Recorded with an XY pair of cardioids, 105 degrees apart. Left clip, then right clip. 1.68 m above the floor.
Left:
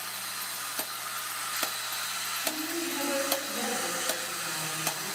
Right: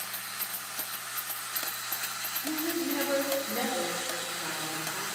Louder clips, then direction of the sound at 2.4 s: Right 1 dB; 60° right.